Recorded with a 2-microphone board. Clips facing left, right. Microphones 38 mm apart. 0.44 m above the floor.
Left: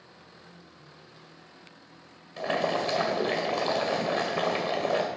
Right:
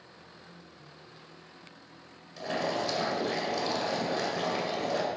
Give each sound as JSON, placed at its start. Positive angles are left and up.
{"t": 2.4, "sound": "boiling", "side_deg": 45, "distance_m": 1.9}